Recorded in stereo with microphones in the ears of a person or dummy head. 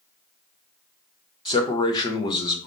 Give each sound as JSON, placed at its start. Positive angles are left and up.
{"t": 1.4, "sound": "a man speaking", "side_deg": 25, "distance_m": 0.8}